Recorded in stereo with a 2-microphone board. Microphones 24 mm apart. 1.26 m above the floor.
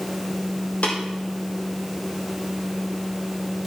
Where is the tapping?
80° left, 5 m.